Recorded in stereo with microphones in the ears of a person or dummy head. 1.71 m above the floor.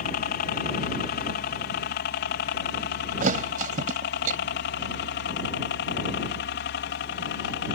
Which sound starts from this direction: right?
A thud, at 3.2 s.